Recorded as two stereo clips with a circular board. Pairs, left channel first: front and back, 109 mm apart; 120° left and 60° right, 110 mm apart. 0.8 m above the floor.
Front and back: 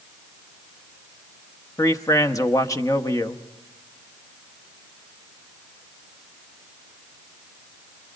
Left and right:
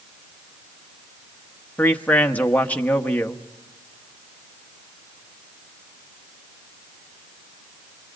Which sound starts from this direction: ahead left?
A man speaking, at 1.8 s.